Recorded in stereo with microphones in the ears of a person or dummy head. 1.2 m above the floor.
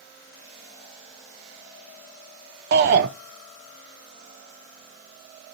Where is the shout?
50° right (ahead or behind), 0.6 m.